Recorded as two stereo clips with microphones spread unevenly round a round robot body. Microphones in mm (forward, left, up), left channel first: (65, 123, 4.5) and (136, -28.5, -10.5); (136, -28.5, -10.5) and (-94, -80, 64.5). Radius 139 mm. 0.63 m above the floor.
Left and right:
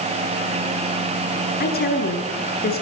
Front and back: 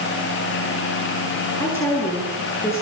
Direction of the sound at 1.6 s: 90° left.